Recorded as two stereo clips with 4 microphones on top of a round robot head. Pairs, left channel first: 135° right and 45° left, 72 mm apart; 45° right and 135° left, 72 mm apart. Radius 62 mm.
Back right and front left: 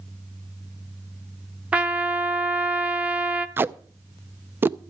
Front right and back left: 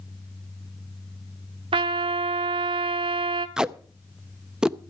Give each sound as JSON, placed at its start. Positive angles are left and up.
{"t": 1.7, "sound": "a trumpet", "azimuth_deg": 120, "distance_m": 0.8}
{"t": 3.6, "sound": "tape being pulled", "azimuth_deg": 65, "distance_m": 0.5}